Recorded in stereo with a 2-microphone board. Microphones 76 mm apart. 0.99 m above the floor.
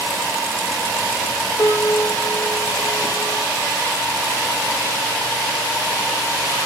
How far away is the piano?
About 1.3 m.